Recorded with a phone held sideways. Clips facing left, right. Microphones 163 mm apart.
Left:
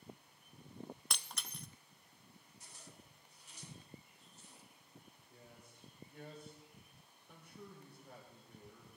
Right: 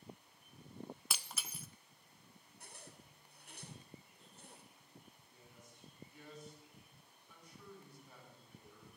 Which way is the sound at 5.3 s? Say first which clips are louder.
Left 4 dB; 60° left (ahead or behind).